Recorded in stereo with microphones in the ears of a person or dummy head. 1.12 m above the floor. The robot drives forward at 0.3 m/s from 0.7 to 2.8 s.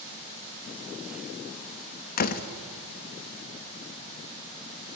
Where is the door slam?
45° left (ahead or behind), 1.2 m.